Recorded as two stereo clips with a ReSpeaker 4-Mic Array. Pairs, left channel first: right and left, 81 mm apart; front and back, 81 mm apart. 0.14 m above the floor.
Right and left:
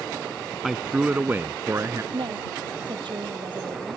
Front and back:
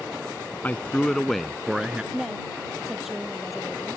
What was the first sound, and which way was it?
A man speaking, 10° left.